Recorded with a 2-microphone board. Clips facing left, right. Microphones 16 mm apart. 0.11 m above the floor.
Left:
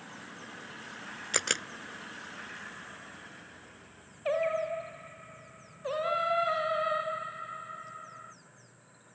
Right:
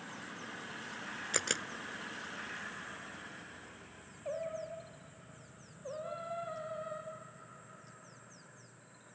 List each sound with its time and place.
1.3 s a camera shutter: 25° left (ahead or behind)
4.2 s singing: 80° left